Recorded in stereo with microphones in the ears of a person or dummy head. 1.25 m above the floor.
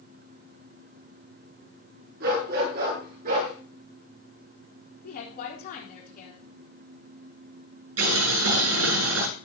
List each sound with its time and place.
2.2 s a dog barking: 55° right (ahead or behind), 7 m; by 3.5 s 45° right (ahead or behind), 8.5 m
5.0 s a woman speaking: 45° left (ahead or behind), 4 m
8.0 s boiling: 85° right, 8.5 m